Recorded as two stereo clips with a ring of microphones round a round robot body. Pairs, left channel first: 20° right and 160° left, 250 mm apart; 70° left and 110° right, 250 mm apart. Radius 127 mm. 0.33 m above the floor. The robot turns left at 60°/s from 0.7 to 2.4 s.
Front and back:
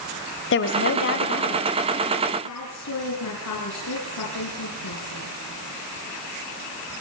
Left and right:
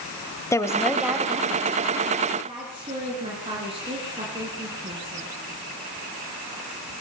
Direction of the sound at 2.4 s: 45° right.